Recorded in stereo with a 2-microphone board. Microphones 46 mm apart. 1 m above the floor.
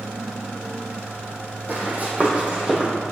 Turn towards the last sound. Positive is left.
turn(degrees=-20)  # may be behind; listen again after turning